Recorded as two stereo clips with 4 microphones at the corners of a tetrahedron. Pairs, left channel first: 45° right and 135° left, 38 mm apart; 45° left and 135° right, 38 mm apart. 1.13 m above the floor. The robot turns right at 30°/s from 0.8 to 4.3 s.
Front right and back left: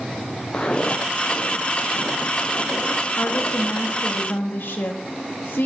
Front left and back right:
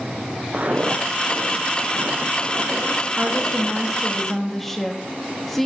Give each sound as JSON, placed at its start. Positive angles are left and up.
{"t": 0.5, "sound": "footsteps", "azimuth_deg": -105, "distance_m": 1.8}
{"t": 3.2, "sound": "a woman speaking", "azimuth_deg": -75, "distance_m": 2.0}